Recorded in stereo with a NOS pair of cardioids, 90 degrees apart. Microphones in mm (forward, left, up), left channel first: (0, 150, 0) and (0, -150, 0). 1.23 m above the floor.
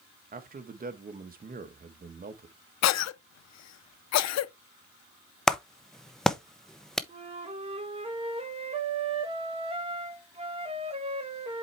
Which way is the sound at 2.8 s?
65° left.